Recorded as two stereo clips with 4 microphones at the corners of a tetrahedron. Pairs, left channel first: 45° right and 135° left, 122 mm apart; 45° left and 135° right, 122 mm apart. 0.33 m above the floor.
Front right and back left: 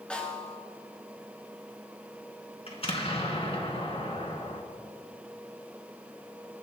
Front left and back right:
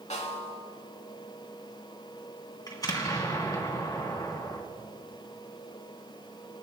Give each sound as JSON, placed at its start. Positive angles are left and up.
{"t": 0.1, "sound": "a snare drum", "azimuth_deg": 35, "distance_m": 3.0}
{"t": 2.7, "sound": "an explosion", "azimuth_deg": -10, "distance_m": 2.5}